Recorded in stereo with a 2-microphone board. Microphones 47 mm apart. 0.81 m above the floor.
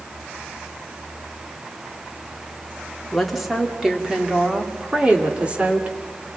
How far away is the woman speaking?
About 2 m.